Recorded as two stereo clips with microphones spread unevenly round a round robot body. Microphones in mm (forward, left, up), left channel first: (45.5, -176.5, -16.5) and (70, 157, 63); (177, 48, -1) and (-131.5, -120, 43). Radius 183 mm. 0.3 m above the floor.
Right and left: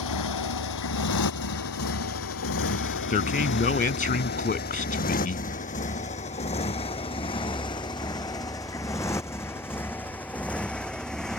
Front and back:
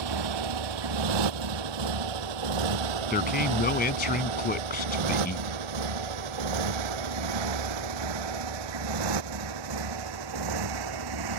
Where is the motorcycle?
135° right; by 11.4 s 175° left.